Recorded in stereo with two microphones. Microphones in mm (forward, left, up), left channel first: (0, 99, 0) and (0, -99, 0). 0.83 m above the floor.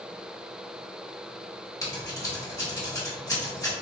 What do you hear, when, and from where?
1.8 s scissors: 15° left (ahead or behind), 1.3 m